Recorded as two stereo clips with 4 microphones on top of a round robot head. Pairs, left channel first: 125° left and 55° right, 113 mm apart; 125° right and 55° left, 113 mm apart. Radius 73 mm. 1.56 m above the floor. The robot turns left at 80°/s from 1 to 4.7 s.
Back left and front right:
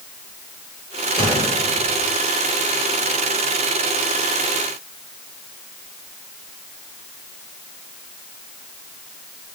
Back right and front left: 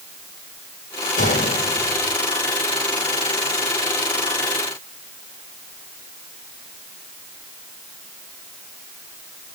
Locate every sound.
1.2 s a gunshot: 100° right, 4 m; by 2.1 s 175° right, 4 m